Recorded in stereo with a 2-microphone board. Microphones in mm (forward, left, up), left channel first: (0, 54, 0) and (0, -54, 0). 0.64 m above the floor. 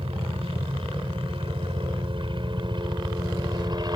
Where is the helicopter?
60° right (ahead or behind); by 4.0 s 40° right (ahead or behind).